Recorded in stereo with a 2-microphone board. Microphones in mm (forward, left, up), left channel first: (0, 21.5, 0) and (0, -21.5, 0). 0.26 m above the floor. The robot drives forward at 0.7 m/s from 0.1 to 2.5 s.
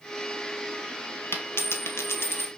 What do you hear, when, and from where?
1.3 s a dropped coin: 65° left (ahead or behind), 1.2 m; by 2.5 s 75° left (ahead or behind), 1.2 m